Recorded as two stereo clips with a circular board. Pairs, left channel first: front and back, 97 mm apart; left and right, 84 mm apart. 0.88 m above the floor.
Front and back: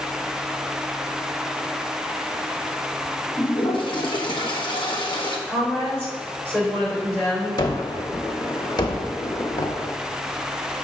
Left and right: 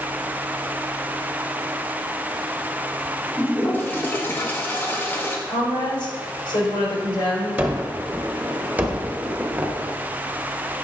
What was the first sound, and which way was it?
A toilet flushing, 25° left.